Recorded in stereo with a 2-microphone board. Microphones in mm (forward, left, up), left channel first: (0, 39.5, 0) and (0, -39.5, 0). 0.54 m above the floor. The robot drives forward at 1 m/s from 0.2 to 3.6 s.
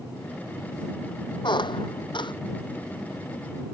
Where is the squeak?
70° left (ahead or behind); by 2.3 s 75° left (ahead or behind).